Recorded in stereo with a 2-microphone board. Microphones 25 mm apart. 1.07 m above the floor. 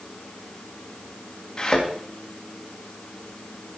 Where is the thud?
35° left (ahead or behind), 3.5 m.